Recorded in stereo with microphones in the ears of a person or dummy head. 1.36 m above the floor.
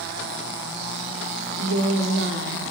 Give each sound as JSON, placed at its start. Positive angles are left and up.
{"t": 1.6, "sound": "a woman speaking", "side_deg": -55, "distance_m": 0.6}